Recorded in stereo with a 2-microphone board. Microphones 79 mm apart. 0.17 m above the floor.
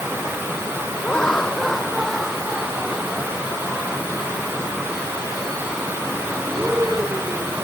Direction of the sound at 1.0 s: 10° left (ahead or behind).